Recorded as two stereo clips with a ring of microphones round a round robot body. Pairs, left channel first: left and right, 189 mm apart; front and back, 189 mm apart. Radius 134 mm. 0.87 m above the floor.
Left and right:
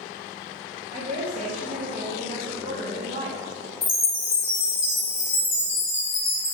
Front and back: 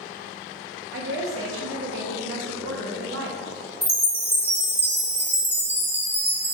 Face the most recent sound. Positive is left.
turn(degrees=80)